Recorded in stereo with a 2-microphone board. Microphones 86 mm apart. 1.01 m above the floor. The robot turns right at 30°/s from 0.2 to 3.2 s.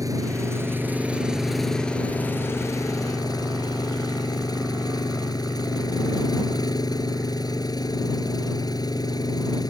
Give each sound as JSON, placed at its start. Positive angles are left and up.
{"t": 0.0, "sound": "an engine running", "azimuth_deg": -40}